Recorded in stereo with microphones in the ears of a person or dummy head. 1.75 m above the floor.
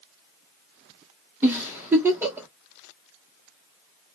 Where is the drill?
No drill in this recording.